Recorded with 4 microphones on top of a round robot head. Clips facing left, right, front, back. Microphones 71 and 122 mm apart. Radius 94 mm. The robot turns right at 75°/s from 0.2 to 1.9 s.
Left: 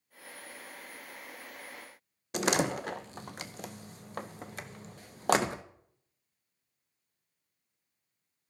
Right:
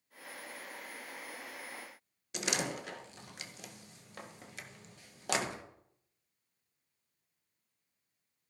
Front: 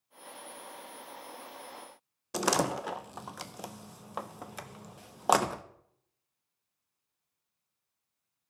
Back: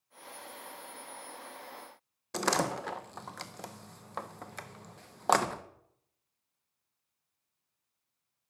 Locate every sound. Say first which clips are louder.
2.3 s a door slam: left 8 dB, front 2 dB; 75° left, 0.6 m